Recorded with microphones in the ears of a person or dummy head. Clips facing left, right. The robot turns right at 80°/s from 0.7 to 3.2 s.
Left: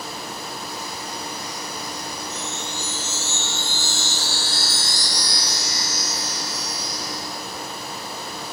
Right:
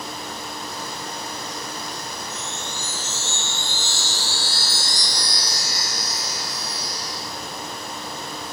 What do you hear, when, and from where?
2.3 s a chime: 95° left, 3 m; by 7.2 s 170° left, 3 m